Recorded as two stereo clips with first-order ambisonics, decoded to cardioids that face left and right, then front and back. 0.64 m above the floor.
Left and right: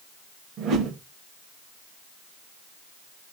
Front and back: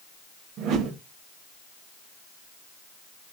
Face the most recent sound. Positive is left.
turn(degrees=-140)